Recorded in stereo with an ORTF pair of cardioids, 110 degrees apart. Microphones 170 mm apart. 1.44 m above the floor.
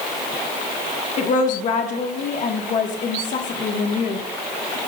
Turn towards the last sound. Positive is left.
turn(degrees=45)